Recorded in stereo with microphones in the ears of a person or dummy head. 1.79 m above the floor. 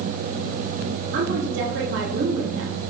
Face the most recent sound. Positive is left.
turn(degrees=-65)  # may be behind; listen again after turning